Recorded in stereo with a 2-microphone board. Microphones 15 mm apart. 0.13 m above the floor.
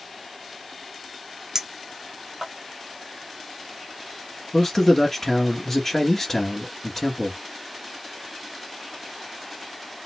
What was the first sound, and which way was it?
A clink, 35° right (ahead or behind).